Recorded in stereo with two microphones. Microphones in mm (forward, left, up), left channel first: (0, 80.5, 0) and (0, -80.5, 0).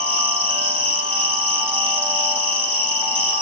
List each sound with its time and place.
0.0 s an insect: 35° right (ahead or behind), 9 m